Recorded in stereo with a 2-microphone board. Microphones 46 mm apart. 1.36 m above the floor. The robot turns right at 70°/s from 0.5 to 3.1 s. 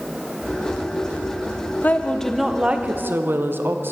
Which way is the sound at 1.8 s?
140° left.